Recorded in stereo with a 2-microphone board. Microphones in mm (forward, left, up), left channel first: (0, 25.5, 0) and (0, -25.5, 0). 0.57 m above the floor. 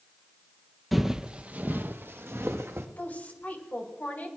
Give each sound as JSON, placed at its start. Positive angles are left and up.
{"t": 0.9, "sound": "footsteps", "side_deg": 0, "distance_m": 1.0}
{"t": 3.0, "sound": "a woman speaking", "side_deg": 35, "distance_m": 3.0}